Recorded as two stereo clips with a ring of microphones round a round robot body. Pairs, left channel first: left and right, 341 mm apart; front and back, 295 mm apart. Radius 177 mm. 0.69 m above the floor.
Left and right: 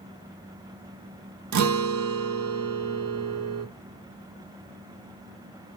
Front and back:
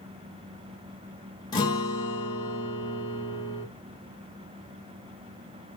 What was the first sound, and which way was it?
A guitar, 75° right.